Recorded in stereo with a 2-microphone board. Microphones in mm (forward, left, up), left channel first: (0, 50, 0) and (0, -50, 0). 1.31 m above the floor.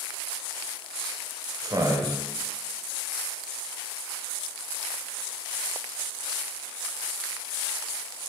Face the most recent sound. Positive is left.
turn(degrees=-35)  # may be behind; listen again after turning